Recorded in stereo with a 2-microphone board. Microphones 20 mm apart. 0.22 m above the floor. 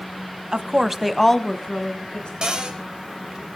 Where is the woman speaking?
40° right (ahead or behind), 1.3 m; by 2.3 s 60° left (ahead or behind), 2 m.